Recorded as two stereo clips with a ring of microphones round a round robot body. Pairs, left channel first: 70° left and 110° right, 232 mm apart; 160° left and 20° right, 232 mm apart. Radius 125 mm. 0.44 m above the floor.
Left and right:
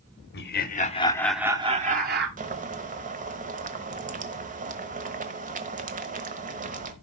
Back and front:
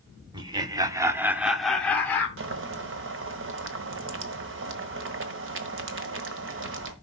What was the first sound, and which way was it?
Laughter, 45° left.